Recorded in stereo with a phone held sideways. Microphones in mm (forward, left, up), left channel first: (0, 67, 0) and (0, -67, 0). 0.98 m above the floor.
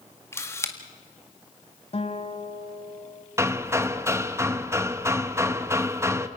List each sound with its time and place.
0.3 s a camera shutter: 20° left (ahead or behind), 1.8 m
1.9 s a guitar: 45° left (ahead or behind), 1.5 m
3.4 s hammering: 20° right (ahead or behind), 0.9 m